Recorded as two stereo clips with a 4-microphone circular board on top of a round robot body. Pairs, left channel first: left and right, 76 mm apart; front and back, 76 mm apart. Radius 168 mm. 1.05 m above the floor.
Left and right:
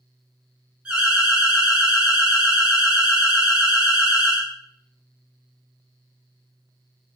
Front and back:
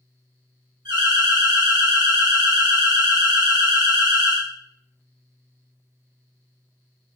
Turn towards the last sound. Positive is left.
turn(degrees=-165)